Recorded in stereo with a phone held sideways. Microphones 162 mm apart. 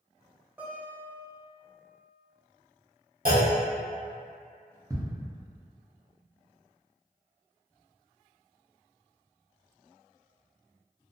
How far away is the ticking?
About 0.8 m.